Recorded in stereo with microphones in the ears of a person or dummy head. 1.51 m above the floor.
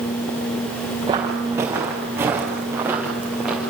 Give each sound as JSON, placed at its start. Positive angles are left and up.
{"t": 1.1, "sound": "footsteps", "side_deg": -25, "distance_m": 5.0}